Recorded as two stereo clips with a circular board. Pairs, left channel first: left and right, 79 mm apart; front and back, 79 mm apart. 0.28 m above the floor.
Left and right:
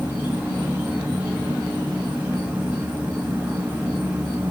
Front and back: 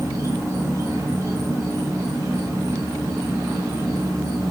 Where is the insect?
155° right, 1.7 m.